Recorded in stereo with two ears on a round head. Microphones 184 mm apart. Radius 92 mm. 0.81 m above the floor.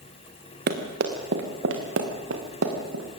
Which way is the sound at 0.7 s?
45° right (ahead or behind).